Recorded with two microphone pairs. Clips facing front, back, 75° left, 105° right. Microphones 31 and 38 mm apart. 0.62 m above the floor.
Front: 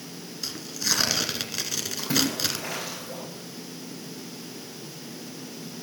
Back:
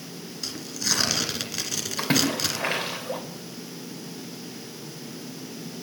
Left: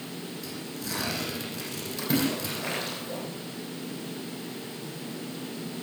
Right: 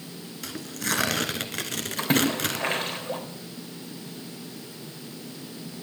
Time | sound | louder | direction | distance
0.4 | tearing paper | even, right 5 dB | 85° right | 1.7 m
2.0 | a splash | back 3 dB, right 4 dB | 145° right | 3 m